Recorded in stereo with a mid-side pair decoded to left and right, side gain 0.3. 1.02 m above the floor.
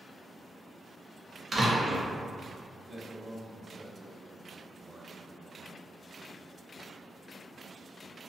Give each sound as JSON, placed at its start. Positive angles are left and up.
{"t": 1.5, "sound": "a door slam", "azimuth_deg": -45, "distance_m": 0.8}
{"t": 2.9, "sound": "a man speaking", "azimuth_deg": -45, "distance_m": 1.0}